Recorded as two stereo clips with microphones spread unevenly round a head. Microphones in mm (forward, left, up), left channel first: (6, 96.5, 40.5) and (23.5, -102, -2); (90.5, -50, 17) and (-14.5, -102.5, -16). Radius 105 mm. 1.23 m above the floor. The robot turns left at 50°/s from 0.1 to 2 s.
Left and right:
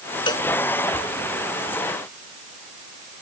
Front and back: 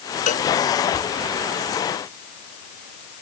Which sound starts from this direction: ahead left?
A cowbell, at 0.3 s.